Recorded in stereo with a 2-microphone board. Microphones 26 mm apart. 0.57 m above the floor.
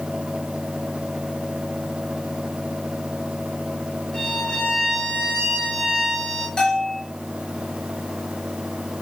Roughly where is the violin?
Left.